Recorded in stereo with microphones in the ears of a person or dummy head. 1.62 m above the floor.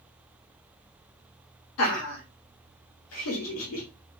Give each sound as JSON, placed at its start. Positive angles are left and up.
{"t": 1.8, "sound": "laughter", "side_deg": 70, "distance_m": 0.9}